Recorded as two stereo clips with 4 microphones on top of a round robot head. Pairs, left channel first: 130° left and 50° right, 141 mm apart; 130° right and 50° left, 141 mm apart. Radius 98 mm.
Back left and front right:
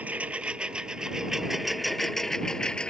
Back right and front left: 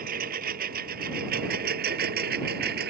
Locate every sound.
0.0 s a lawn mower: 30° left; by 2.9 s 45° left